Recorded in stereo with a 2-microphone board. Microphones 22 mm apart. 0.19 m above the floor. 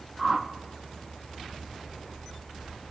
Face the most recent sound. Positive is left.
turn(degrees=-5)  # may be behind; listen again after turning